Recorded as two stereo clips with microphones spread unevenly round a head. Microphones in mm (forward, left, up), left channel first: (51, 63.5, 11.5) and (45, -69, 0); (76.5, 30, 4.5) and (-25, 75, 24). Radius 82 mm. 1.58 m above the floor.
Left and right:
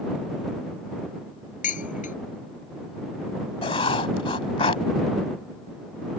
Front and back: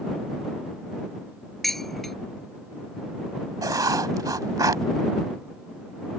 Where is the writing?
125° left.